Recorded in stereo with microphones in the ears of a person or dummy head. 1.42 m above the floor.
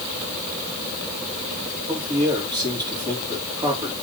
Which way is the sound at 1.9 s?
20° right (ahead or behind).